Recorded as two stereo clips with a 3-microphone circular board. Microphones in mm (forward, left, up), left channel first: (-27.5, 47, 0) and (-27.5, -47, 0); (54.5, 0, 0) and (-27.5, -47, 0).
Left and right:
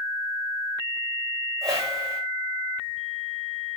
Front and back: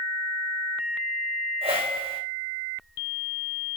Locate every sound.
1.6 s a whoosh: 145° right, 3.5 m